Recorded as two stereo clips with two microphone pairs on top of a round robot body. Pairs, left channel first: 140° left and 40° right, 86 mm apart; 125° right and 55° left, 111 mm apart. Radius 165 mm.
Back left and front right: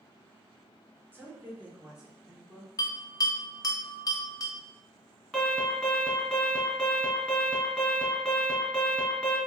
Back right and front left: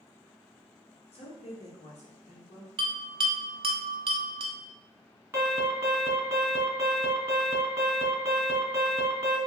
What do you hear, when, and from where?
1.1 s a woman speaking: 105° right, 1.4 m; by 2.7 s 130° right, 1.8 m
2.8 s a bell: 90° left, 0.7 m
5.3 s an alarm: 55° left, 1.9 m